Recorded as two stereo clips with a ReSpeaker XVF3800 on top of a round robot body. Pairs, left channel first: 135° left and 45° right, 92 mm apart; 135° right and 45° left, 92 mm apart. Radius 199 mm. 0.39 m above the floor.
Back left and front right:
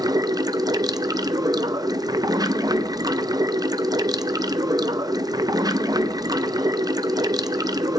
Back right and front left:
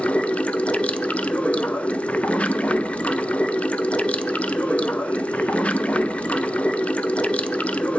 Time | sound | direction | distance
0.0 | running water | 65° right | 0.7 m